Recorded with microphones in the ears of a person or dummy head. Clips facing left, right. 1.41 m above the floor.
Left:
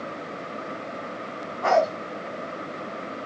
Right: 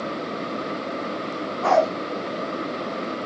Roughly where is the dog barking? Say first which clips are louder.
Right 2 dB; centre.